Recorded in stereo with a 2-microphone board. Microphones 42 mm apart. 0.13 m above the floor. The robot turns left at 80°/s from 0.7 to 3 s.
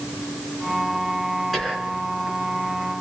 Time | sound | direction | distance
1.5 | whispering | 5° left | 1.6 m